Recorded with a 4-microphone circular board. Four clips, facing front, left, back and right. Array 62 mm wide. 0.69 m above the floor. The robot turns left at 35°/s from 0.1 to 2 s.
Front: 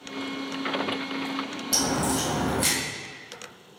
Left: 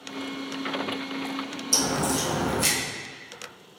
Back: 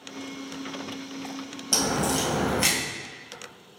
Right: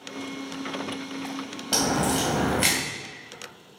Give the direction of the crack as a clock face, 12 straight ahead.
3 o'clock.